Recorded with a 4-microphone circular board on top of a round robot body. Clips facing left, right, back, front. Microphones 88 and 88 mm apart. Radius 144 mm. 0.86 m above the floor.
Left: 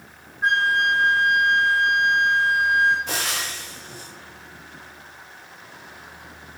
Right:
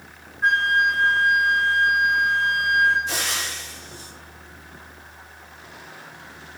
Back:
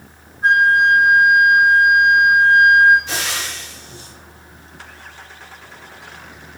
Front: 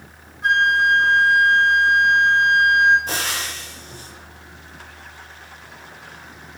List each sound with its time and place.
0.4 s a flute: 5° left, 0.5 m
3.1 s frying: 50° left, 0.9 m